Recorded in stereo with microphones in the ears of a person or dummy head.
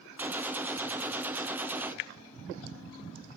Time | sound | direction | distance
0.2 | a gunshot | 10° right (ahead or behind) | 0.6 m